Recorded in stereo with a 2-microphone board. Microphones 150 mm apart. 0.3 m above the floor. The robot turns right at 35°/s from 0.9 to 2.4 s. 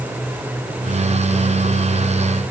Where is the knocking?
No knocking in this recording.